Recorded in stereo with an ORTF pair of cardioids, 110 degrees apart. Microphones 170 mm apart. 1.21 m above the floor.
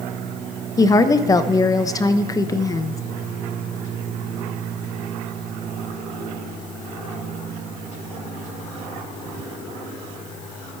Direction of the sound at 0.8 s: 20° left.